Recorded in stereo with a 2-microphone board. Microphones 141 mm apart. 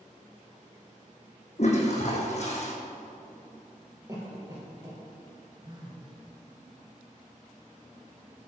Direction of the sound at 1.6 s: 55° left (ahead or behind).